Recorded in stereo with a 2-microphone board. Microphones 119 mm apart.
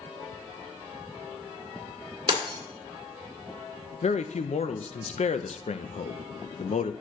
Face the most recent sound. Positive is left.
turn(degrees=70)  # may be behind; listen again after turning